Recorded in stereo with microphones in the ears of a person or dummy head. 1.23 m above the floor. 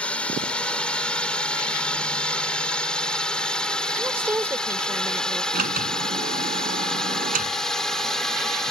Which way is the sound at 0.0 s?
10° left (ahead or behind).